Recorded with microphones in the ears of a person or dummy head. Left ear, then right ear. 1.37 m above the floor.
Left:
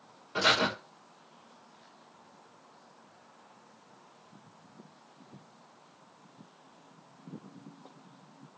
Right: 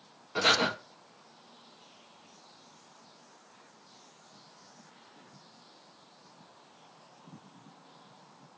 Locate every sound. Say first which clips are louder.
0.3 s breathing: even; 5° left (ahead or behind), 1.0 m